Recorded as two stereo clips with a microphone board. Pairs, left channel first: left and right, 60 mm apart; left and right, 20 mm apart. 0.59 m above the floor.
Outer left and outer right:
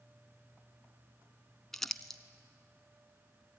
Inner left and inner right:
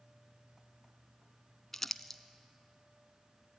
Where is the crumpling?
5° left (ahead or behind), 0.9 m.